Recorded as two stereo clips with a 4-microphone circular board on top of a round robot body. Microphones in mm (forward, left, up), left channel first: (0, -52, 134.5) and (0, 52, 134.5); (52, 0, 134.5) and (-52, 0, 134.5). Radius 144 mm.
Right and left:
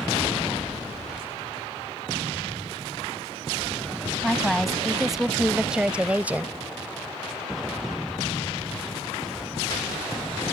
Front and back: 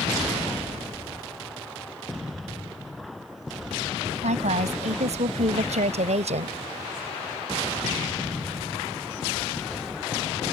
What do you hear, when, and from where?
4.2 s a woman speaking: straight behind; by 6.6 s 165° left